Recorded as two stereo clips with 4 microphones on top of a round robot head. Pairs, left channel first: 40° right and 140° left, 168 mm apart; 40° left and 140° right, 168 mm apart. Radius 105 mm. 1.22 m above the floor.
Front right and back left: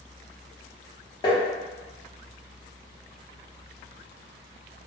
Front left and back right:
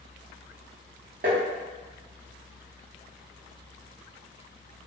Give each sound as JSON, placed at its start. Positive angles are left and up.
{"t": 1.2, "sound": "tapping", "azimuth_deg": -105, "distance_m": 0.6}